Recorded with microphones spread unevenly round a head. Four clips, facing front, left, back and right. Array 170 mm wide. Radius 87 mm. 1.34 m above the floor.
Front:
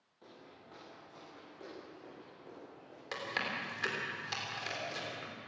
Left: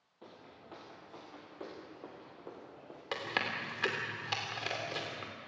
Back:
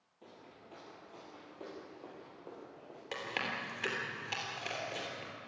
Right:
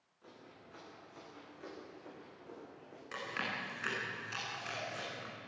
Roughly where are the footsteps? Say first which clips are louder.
Left 3 dB, even; left.